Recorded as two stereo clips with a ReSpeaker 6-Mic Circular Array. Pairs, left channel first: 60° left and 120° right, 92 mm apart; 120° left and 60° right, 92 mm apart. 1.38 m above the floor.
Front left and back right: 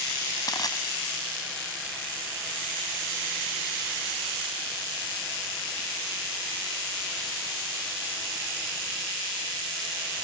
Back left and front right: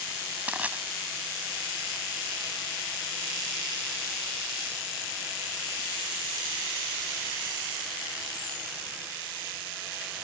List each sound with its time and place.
0.5 s crushing: 15° left